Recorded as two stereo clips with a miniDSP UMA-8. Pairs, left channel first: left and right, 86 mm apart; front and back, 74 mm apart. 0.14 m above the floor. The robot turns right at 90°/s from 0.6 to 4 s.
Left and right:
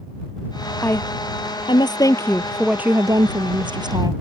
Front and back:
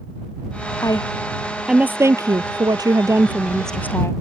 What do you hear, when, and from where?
0.8 s a woman speaking: 20° left; by 4.1 s 55° right